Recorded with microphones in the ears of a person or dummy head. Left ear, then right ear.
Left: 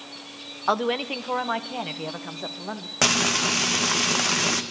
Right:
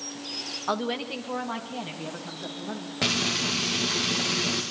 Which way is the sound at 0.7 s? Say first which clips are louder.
Left 7 dB; 25° left (ahead or behind).